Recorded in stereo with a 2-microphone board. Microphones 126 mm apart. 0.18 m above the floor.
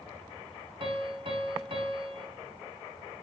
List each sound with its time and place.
0.8 s a piano: 45° right (ahead or behind), 1.0 m